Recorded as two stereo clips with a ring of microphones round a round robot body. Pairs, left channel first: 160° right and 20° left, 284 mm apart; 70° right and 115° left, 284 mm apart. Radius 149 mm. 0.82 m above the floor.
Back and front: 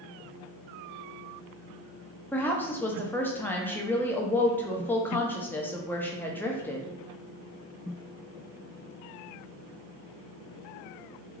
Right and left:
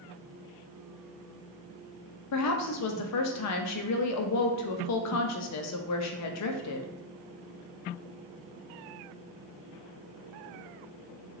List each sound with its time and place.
2.3 s a woman speaking: 75° right, 0.6 m